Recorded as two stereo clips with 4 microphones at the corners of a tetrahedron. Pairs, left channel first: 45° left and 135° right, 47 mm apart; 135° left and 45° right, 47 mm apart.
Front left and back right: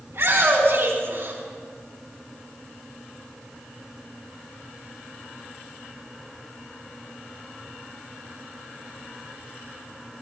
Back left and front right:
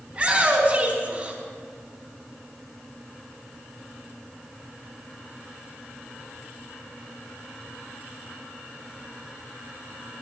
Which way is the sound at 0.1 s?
110° right.